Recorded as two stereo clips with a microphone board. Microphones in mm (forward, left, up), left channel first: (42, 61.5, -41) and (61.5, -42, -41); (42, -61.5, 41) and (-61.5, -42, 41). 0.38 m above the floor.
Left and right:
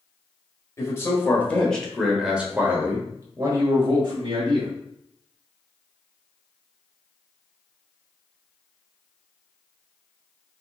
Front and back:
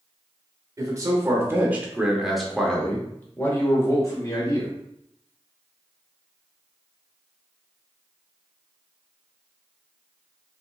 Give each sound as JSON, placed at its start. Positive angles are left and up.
{"t": 0.8, "sound": "a man speaking", "azimuth_deg": 140, "distance_m": 1.1}